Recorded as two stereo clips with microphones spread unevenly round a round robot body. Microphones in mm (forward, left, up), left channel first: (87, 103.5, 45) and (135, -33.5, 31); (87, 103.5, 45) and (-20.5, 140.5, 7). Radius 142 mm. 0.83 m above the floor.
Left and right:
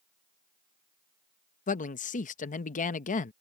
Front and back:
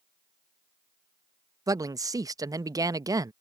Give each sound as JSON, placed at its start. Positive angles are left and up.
{"t": 1.7, "sound": "a man speaking", "azimuth_deg": 135}